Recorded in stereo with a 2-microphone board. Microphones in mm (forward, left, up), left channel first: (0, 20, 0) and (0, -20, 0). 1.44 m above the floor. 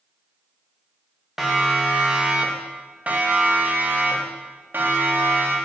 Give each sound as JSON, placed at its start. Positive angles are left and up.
{"t": 1.4, "sound": "a siren", "side_deg": -10, "distance_m": 3.0}